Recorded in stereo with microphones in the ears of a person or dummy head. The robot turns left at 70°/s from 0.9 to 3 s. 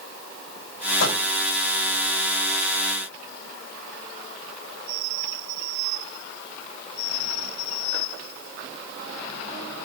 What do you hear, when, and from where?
1.0 s a microwave: 65° left (ahead or behind), 8.5 m; by 1.2 s 80° left, 8.5 m